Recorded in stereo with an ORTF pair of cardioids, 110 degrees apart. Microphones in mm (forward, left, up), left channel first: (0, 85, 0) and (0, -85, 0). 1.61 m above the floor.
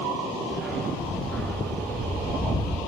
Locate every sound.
0.5 s a dog barking: straight ahead, 7 m; by 2.8 s 20° left, 5 m